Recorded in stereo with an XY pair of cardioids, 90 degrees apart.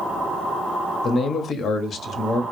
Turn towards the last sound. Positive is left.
turn(degrees=65)